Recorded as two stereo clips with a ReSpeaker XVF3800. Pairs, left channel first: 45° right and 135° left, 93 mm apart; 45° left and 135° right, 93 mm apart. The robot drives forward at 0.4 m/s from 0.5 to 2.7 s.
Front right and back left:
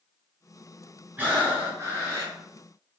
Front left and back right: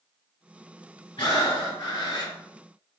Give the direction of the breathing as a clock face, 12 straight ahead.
10 o'clock.